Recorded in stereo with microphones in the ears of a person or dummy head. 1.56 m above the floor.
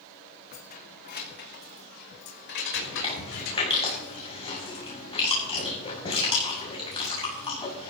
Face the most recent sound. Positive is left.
turn(degrees=20)  # may be behind; listen again after turning